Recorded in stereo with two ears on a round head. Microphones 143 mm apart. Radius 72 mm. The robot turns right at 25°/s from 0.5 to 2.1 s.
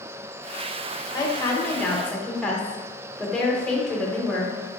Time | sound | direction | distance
1.1 | a woman speaking | 25° left (ahead or behind) | 0.6 m